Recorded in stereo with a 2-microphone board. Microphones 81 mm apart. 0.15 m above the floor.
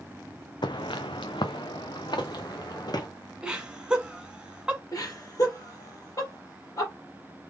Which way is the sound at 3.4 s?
10° right (ahead or behind).